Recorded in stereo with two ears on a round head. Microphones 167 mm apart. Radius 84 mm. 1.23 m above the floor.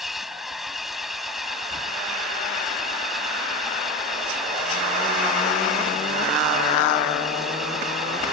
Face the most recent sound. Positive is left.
turn(degrees=0)  # may be behind; listen again after turning